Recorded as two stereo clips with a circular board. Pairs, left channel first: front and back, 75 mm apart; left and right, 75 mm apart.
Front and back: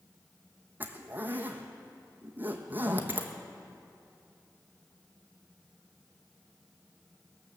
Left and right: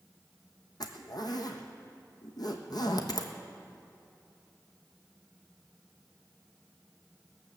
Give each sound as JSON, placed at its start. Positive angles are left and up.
{"t": 0.8, "sound": "a zipper", "azimuth_deg": 115, "distance_m": 1.4}